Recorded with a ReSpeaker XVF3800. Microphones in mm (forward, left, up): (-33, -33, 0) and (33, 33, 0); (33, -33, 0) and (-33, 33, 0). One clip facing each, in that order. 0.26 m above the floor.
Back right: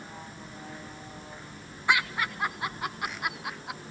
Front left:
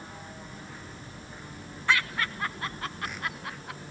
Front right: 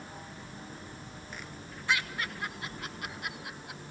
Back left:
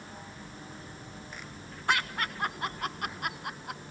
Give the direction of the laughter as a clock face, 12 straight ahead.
7 o'clock.